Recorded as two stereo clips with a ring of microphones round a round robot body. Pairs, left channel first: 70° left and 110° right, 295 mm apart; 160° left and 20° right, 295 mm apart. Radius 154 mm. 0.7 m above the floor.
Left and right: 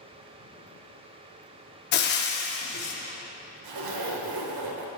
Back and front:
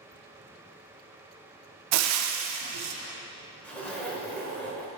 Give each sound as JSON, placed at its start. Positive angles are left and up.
{"t": 1.9, "sound": "frying", "azimuth_deg": 10, "distance_m": 0.6}
{"t": 3.6, "sound": "a zipper", "azimuth_deg": -115, "distance_m": 0.9}